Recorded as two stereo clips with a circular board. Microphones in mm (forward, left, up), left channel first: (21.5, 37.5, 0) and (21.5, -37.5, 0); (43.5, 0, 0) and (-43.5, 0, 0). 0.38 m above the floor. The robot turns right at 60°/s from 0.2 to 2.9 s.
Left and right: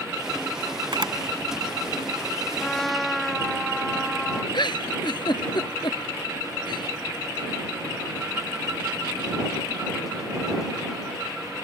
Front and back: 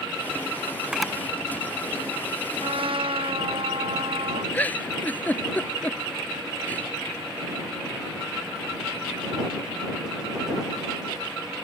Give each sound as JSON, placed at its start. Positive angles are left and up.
{"t": 0.9, "sound": "a camera shutter", "azimuth_deg": -100}
{"t": 2.6, "sound": "a trumpet", "azimuth_deg": 160}
{"t": 4.5, "sound": "a giggle", "azimuth_deg": 70}